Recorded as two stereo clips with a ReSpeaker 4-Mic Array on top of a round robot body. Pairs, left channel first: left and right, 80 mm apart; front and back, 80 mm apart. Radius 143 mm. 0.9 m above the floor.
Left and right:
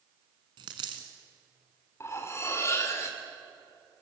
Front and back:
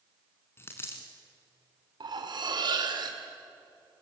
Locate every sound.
0.6 s a dropped coin: 60° right, 1.1 m
2.0 s cutlery clinking: 150° left, 2 m